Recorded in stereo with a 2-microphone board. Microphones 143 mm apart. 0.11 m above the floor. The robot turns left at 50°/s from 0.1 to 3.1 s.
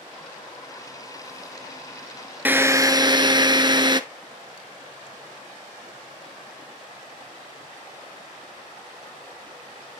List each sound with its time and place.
2.5 s a drill: 20° right, 0.6 m; by 4.0 s 50° right, 0.6 m